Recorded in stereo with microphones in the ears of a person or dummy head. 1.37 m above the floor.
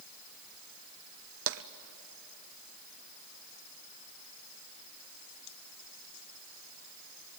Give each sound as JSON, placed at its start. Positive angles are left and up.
{"t": 1.5, "sound": "tapping", "side_deg": -60, "distance_m": 0.9}